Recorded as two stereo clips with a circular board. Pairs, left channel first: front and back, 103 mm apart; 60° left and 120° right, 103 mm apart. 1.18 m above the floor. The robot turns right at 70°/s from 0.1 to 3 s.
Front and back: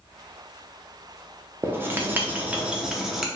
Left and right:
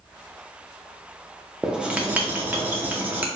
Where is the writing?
170° left, 0.7 m; by 3.3 s 95° right, 0.7 m.